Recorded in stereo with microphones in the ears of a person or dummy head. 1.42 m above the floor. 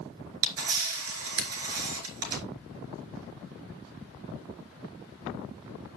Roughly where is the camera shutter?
Right.